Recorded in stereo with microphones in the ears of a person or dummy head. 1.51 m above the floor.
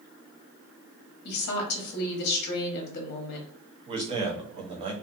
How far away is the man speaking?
About 0.6 m.